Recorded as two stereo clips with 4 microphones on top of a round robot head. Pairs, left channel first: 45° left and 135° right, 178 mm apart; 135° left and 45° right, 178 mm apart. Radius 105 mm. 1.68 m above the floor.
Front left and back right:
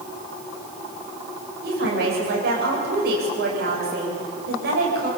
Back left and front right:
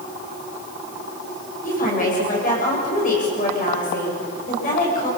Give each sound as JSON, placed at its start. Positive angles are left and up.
{"t": 1.6, "sound": "a woman speaking", "azimuth_deg": -175, "distance_m": 9.5}